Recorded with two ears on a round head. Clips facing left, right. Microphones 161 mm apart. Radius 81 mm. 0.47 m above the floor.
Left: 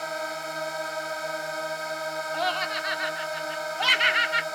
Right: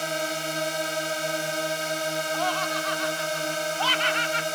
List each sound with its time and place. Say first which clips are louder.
0.0 s a drone: right 3 dB; 35° right (ahead or behind)
2.3 s laughter: right 2 dB; 20° left (ahead or behind)